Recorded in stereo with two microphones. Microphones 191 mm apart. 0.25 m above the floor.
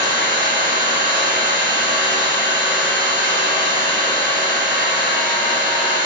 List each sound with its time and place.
0.0 s an engine running: 50° right (ahead or behind), 1.5 m